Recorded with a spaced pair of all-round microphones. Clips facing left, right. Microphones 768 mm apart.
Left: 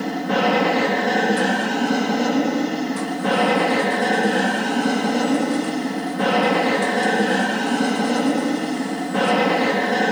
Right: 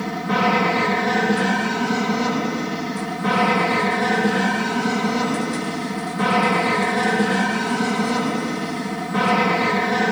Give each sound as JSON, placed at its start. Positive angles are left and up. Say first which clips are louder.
{"t": 0.0, "sound": "an aircraft", "louder": "left 2 dB", "side_deg": -40}